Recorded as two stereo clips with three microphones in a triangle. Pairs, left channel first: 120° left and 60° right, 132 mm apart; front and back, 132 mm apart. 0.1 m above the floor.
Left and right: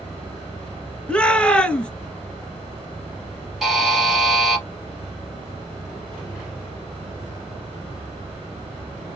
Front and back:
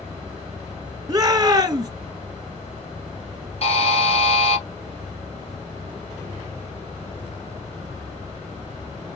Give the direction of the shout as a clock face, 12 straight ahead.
6 o'clock.